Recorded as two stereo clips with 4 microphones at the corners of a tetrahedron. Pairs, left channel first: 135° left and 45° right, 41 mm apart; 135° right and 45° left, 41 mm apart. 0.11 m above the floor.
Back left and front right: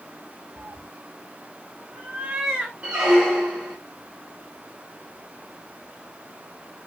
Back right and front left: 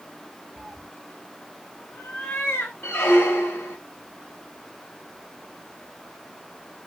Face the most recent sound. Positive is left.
turn(degrees=-110)